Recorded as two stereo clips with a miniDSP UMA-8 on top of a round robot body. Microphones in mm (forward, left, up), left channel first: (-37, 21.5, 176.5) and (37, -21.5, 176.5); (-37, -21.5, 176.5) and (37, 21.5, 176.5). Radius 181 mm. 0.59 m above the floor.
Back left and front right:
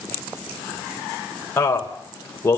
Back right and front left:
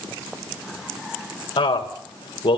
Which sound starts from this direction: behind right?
A man speaking, at 1.6 s.